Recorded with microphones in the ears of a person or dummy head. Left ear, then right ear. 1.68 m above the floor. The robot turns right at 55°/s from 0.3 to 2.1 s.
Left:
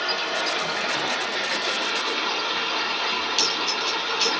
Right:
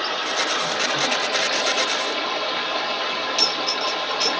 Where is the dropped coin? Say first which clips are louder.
Right 3 dB; centre (ahead or behind), 1.9 m.